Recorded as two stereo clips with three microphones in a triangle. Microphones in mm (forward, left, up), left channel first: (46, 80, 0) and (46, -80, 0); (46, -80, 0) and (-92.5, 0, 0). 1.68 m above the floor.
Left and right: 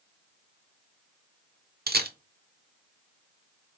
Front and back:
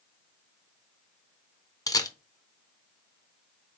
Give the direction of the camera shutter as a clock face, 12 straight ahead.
3 o'clock.